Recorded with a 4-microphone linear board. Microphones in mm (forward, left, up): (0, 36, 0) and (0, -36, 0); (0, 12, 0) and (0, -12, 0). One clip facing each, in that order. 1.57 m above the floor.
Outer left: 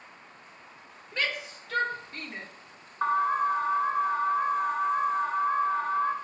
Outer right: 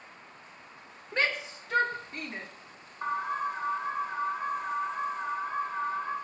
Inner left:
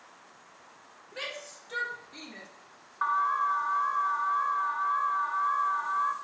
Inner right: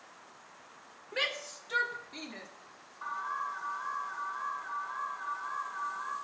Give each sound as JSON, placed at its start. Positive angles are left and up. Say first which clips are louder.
{"t": 1.1, "sound": "a shout", "louder": "outer right 2 dB, inner right 5 dB", "side_deg": -35, "distance_m": 1.6}
{"t": 3.0, "sound": "an alarm", "louder": "outer left 6 dB, inner left 10 dB", "side_deg": 75, "distance_m": 1.4}